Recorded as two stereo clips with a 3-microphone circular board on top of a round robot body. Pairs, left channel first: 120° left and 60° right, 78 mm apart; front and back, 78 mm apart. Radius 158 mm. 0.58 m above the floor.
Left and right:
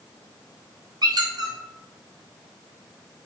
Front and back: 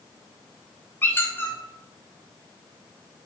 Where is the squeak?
60° right, 0.8 m.